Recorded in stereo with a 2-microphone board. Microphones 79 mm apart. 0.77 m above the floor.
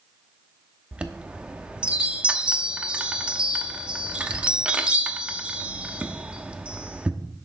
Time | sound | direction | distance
0.9 | a chime | 15° right (ahead or behind) | 0.9 m